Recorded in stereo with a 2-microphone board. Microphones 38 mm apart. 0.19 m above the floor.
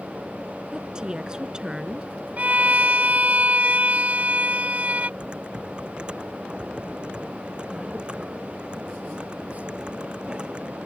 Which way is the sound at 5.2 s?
30° right (ahead or behind).